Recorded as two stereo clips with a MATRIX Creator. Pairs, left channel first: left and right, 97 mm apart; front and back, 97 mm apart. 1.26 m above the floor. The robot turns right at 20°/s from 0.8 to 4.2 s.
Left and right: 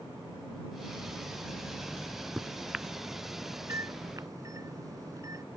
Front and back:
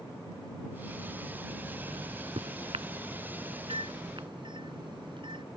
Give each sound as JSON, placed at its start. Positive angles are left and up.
{"t": 1.9, "sound": "a microwave", "azimuth_deg": 170}